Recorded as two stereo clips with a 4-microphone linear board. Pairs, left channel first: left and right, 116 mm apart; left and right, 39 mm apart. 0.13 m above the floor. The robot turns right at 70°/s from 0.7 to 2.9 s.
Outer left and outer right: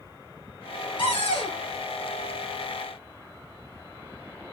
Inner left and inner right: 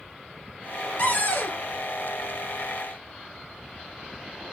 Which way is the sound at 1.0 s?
65° left.